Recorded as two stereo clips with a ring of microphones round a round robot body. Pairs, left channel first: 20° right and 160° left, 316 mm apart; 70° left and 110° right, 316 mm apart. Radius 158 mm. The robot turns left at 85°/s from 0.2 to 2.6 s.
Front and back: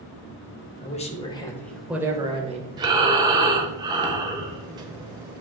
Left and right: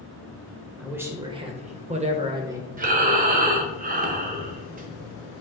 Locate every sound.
0.8 s a man speaking: 25° right, 1.0 m; by 2.7 s straight behind, 1.0 m
2.8 s breathing: 140° right, 1.0 m